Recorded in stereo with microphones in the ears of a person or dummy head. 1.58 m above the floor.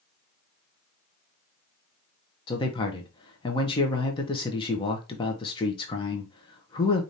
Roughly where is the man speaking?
Left.